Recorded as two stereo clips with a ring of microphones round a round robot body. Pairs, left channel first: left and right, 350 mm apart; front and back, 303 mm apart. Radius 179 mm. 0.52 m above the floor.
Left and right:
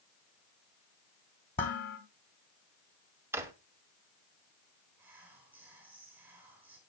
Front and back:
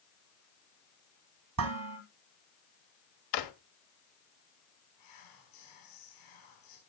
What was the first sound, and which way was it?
Dishes clattering, 150° left.